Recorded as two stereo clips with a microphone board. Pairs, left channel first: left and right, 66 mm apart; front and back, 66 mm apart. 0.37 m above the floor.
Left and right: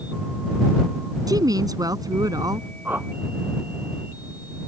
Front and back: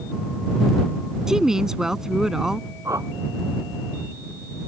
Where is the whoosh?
150° right.